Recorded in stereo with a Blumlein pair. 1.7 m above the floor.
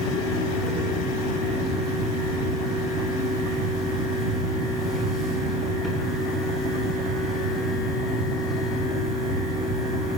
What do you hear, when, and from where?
0.0 s a fan: 20° left, 4.5 m